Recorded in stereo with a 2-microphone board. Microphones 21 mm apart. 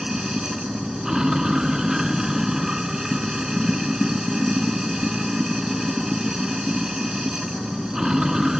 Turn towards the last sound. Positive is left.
turn(degrees=-25)  # may be behind; listen again after turning